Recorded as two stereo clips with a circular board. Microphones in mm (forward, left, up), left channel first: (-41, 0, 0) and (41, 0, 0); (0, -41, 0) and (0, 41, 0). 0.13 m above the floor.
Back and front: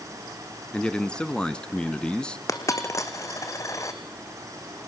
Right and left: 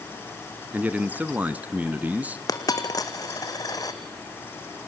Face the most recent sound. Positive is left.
turn(degrees=-130)